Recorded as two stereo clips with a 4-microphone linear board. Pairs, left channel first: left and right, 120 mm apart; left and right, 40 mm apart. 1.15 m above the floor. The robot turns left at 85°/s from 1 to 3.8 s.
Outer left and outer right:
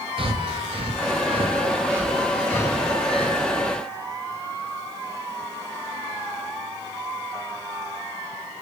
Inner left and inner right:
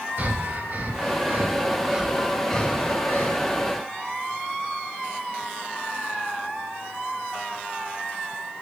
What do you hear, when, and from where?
0.2 s breathing: 45° right (ahead or behind), 0.5 m; by 3.4 s 50° left (ahead or behind), 0.5 m